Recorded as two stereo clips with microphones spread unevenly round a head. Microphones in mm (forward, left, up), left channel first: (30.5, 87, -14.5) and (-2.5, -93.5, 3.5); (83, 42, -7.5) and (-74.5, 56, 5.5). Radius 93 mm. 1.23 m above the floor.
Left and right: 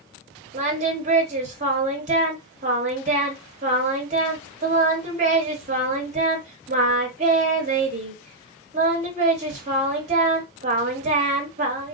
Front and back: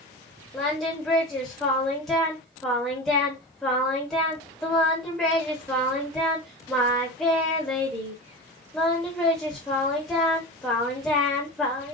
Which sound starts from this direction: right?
Singing, at 0.5 s.